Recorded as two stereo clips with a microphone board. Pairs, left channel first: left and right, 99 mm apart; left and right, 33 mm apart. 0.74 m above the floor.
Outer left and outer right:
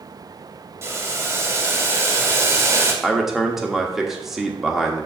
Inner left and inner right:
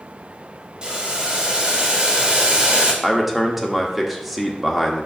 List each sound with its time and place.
0.8 s boiling: 25° right (ahead or behind), 1.6 m
3.0 s a man speaking: 5° right (ahead or behind), 1.2 m